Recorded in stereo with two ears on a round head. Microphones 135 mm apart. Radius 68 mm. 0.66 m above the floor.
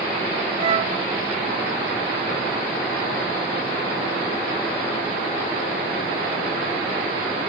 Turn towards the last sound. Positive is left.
turn(degrees=-35)  # may be behind; listen again after turning